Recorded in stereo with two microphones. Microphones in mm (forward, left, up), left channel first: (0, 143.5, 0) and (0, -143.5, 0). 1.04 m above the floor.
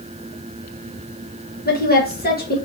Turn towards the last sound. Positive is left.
turn(degrees=30)  # may be behind; listen again after turning